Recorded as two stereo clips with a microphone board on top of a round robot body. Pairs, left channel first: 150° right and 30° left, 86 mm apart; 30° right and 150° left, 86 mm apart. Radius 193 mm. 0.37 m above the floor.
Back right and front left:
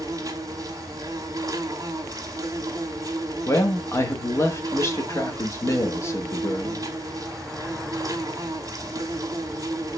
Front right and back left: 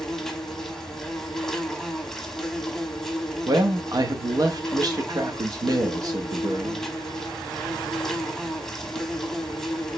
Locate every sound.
0.0 s an insect: 55° left, 1.1 m
3.5 s a man speaking: 165° left, 1.0 m